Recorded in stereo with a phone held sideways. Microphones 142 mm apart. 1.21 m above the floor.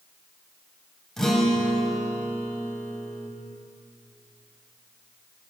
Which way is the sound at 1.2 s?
5° left (ahead or behind).